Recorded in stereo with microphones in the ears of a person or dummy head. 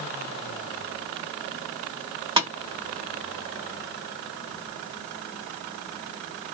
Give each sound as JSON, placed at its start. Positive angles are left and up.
{"t": 2.4, "sound": "tapping", "side_deg": -15, "distance_m": 1.4}